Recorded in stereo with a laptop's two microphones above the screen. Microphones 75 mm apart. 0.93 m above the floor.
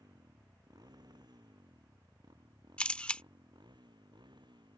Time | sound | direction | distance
0.0 | a motorcycle | 60° right (ahead or behind) | ?
2.8 | a camera shutter | 15° left (ahead or behind) | ?